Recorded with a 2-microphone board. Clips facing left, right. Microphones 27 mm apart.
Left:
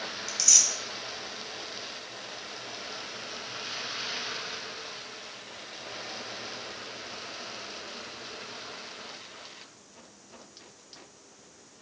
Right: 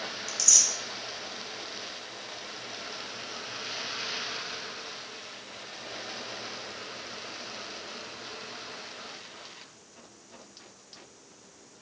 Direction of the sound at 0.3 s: 25° left (ahead or behind).